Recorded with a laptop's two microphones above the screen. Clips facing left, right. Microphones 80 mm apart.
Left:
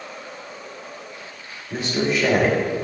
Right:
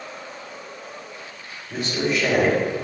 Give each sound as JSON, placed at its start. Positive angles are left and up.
{"t": 1.7, "sound": "a man speaking", "side_deg": 15, "distance_m": 3.5}